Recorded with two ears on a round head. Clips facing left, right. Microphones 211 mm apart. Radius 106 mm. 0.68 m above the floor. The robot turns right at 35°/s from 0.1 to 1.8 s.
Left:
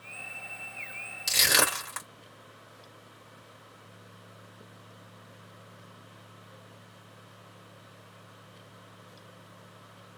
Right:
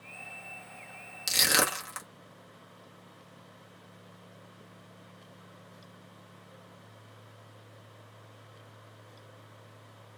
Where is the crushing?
15° right (ahead or behind), 1.1 m; by 2.1 s 10° right (ahead or behind), 1.1 m.